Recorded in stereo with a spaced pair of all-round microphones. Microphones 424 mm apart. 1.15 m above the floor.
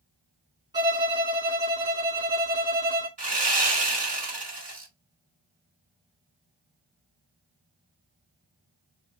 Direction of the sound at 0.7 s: 10° right (ahead or behind).